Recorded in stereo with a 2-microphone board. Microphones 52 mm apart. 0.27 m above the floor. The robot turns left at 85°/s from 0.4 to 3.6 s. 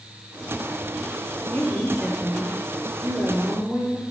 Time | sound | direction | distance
1.5 | a woman speaking | 40° left | 5.5 m